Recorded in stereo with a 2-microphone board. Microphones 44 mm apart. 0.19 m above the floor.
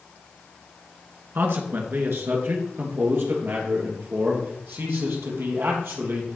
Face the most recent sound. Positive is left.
turn(degrees=-65)  # may be behind; listen again after turning